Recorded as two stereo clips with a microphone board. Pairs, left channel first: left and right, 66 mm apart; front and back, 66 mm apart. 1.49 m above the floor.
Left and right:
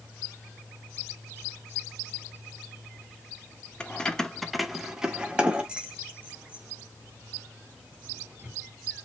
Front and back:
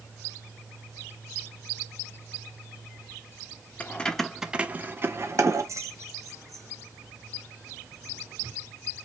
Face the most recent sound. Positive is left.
turn(degrees=-155)